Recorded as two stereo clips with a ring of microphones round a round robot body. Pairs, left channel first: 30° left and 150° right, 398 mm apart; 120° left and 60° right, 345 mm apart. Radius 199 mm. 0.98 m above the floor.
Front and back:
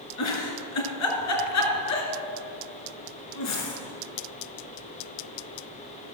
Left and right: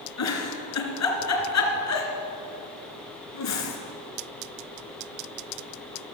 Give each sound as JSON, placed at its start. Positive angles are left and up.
{"t": 0.2, "sound": "a giggle", "azimuth_deg": 80, "distance_m": 2.5}